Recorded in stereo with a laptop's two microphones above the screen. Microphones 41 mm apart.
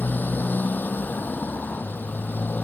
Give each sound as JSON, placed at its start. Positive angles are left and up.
{"t": 0.0, "sound": "a motorcycle", "side_deg": 45}